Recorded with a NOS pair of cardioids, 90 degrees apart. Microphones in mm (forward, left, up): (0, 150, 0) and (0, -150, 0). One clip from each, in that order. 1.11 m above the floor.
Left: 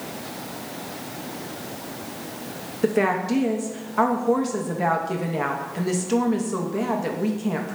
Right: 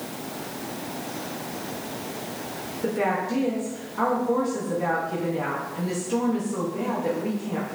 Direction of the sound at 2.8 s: 55° left.